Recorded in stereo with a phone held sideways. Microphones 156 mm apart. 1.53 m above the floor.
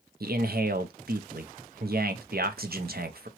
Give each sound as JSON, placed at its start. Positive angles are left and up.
{"t": 0.2, "sound": "a man speaking", "side_deg": -75, "distance_m": 0.6}